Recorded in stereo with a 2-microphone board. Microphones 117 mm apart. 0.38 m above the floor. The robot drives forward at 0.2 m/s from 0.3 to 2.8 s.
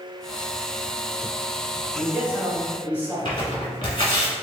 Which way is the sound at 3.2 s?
40° left (ahead or behind).